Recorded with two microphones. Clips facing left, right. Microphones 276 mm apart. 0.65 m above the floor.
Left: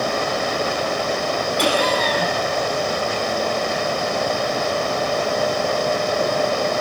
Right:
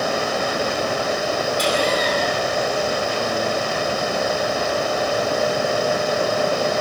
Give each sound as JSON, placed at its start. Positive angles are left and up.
{"t": 1.6, "sound": "laughter", "side_deg": 75, "distance_m": 7.5}